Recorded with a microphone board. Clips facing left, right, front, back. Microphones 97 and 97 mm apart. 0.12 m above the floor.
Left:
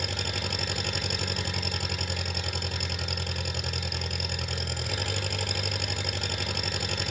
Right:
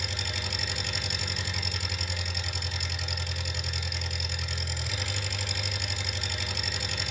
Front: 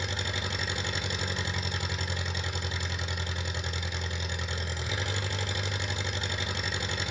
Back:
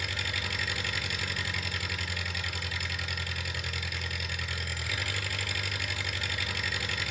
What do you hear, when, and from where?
0.0 s an engine running: 65° left, 1.2 m